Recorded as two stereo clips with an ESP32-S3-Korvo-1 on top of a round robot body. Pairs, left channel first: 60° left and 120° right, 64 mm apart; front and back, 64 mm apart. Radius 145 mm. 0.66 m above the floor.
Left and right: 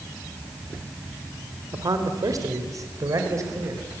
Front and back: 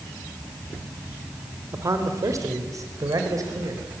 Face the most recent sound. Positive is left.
turn(degrees=-155)